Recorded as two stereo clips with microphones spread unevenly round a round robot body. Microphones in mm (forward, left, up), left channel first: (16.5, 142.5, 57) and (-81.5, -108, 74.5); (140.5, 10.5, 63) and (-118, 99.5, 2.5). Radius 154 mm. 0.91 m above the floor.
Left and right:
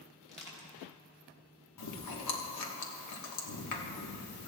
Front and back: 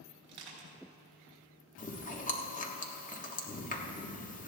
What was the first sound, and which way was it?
Crushing, 135° left.